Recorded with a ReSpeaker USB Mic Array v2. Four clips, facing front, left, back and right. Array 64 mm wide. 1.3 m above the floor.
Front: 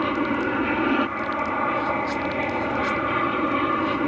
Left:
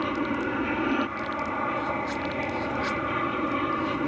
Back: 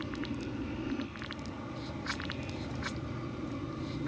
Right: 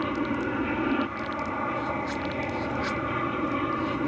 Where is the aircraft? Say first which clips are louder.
Even, front 15 dB; 10° left.